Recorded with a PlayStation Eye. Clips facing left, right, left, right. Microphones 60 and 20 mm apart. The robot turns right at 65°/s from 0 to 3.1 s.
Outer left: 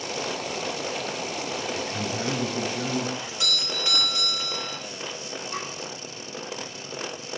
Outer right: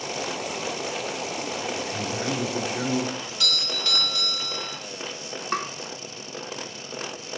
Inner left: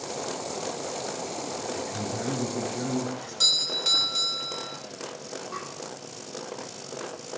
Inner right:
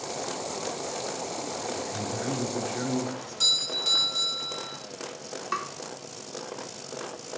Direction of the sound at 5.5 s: 65° right (ahead or behind).